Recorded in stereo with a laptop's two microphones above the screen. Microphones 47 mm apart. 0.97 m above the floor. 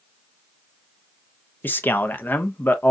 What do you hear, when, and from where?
1.6 s a man speaking: 45° left (ahead or behind), 0.5 m